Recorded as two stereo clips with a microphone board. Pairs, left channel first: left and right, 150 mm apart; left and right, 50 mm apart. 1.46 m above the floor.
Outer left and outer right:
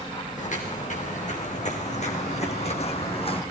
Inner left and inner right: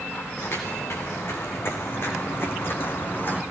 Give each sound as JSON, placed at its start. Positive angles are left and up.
{"t": 0.4, "sound": "footsteps", "side_deg": 55, "distance_m": 5.0}